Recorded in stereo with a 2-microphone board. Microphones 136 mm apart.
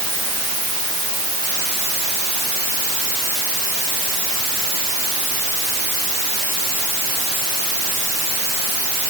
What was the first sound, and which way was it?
Only background noise.